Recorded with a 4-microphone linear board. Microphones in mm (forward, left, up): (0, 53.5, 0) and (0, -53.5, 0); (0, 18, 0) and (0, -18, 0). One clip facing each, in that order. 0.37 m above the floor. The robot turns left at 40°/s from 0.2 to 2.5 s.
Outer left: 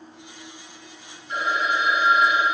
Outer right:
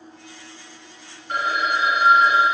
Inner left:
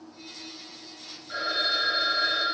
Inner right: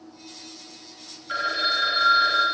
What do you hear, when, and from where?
1.3 s a phone ringing: 80° right, 1.6 m; by 2.5 s 125° right, 1.6 m